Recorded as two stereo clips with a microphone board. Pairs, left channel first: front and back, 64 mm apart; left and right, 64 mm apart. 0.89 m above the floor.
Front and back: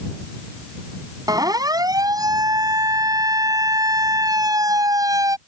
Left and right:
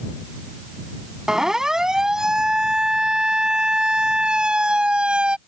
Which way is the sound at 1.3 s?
170° right.